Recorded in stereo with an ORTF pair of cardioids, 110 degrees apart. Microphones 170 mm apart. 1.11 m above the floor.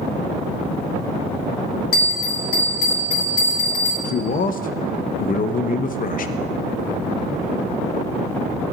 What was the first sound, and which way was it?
A bell, 60° left.